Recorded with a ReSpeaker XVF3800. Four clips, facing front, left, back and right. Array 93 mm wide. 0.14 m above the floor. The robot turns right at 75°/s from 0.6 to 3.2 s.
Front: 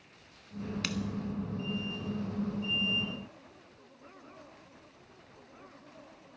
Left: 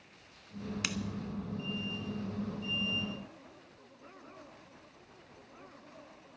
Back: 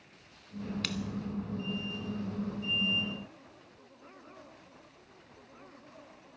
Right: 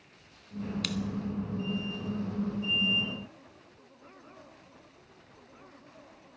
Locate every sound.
0.8 s scissors: 70° left, 0.9 m; by 1.0 s 80° left, 0.9 m